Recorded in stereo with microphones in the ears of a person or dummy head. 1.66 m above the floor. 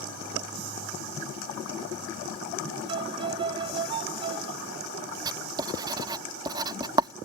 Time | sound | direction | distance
2.9 | a violin | 30° right (ahead or behind) | ?
5.2 | writing | 20° right (ahead or behind) | ?